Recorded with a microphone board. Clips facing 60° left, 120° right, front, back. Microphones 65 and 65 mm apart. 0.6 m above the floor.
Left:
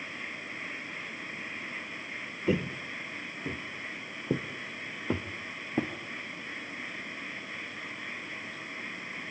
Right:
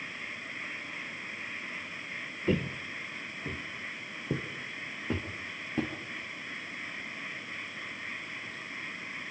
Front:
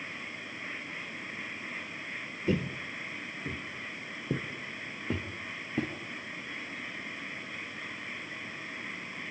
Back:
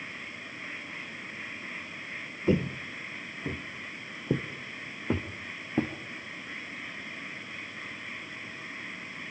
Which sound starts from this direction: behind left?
Footsteps, at 2.5 s.